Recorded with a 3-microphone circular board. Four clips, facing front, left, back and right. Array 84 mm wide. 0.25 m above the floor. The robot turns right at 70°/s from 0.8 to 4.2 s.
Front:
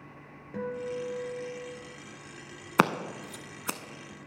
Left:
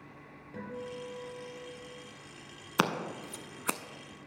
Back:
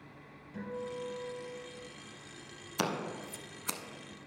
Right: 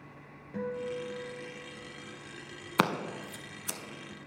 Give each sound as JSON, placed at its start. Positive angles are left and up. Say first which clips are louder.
{"t": 0.5, "sound": "a guitar", "louder": "right 6 dB, front 6 dB", "azimuth_deg": -15, "distance_m": 3.0}
{"t": 2.8, "sound": "scissors", "louder": "right 1 dB, front 9 dB", "azimuth_deg": 0, "distance_m": 0.5}